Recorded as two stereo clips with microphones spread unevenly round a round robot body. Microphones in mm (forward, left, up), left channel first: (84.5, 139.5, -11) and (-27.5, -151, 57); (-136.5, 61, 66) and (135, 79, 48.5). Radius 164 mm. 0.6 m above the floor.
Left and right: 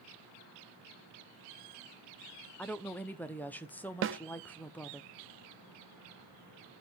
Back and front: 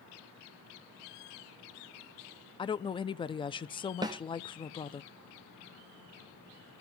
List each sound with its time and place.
2.6 s a woman speaking: 120° left, 0.6 m
4.0 s a snare drum: 60° right, 0.6 m